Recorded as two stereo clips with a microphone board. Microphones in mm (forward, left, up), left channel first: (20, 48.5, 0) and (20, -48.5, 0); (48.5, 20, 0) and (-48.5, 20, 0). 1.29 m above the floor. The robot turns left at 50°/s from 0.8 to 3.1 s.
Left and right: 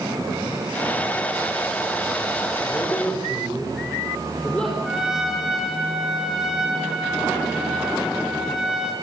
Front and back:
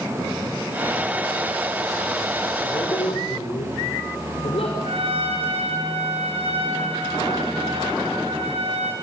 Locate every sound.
2.6 s a man speaking: 35° left, 5 m; by 4.7 s 10° left, 5 m
4.8 s a trumpet: 175° right, 7.5 m